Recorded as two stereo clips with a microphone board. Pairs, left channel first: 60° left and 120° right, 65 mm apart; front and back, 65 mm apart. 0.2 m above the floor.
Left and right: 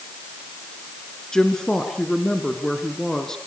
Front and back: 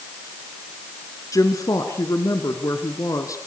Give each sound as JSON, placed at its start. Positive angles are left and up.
{"t": 1.3, "sound": "a woman speaking", "azimuth_deg": -20, "distance_m": 3.0}